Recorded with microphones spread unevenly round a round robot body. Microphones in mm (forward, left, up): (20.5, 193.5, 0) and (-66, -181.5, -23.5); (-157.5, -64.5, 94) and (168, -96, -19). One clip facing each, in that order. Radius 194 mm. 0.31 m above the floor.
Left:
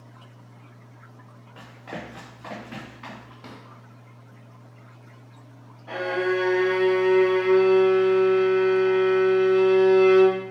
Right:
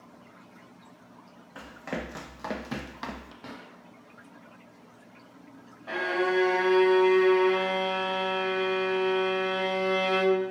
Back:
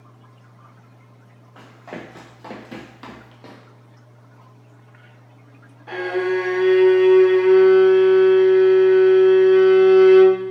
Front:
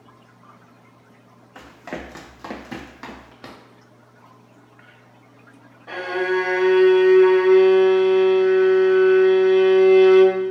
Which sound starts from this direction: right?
A violin, at 5.9 s.